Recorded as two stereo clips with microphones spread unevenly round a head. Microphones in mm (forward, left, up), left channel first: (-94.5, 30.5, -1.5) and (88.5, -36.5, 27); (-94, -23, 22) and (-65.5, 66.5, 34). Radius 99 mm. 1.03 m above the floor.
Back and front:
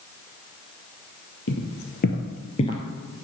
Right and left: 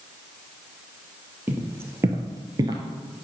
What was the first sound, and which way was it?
Footsteps, 135° left.